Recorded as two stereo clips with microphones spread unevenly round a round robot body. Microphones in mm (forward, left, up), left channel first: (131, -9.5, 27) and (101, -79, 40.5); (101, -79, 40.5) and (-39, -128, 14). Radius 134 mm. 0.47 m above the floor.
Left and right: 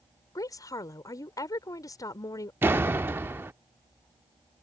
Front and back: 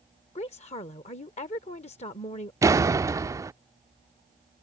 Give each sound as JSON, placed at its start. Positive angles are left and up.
{"t": 0.3, "sound": "a woman speaking", "azimuth_deg": 70}
{"t": 2.6, "sound": "a door slam", "azimuth_deg": -170}